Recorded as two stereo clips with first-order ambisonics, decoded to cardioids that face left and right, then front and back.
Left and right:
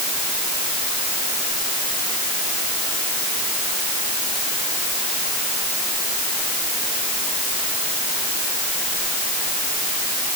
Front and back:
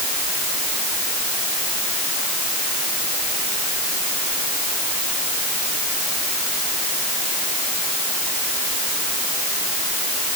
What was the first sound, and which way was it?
Only background noise.